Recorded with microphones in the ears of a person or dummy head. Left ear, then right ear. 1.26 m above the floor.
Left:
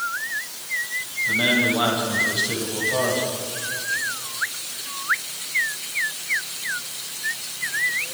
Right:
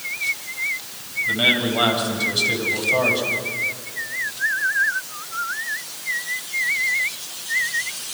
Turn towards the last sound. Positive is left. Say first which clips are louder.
# right 1 dB
turn(degrees=-15)  # may be behind; listen again after turning